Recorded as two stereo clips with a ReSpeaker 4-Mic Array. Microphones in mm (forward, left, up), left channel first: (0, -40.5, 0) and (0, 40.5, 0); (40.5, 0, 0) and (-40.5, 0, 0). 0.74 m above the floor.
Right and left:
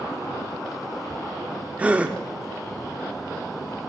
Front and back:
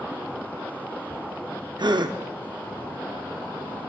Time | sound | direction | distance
1.8 | a gasp | 165° left | 0.5 m